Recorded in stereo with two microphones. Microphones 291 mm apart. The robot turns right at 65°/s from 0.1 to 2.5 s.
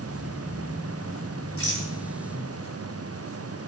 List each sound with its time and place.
1.6 s a rattle: 50° left (ahead or behind), 2 m; by 1.9 s 30° left (ahead or behind), 2 m